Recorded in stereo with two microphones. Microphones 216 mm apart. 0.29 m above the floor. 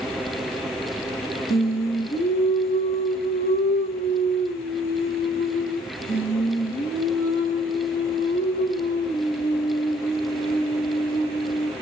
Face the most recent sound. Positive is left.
turn(degrees=65)  # may be behind; listen again after turning